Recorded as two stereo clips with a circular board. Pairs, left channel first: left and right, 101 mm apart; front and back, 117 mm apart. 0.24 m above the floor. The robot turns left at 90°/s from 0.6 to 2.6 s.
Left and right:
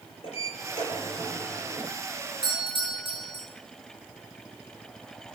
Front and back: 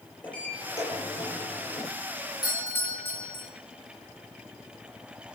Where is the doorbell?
55° right, 5 m; by 3.5 s 70° right, 5 m.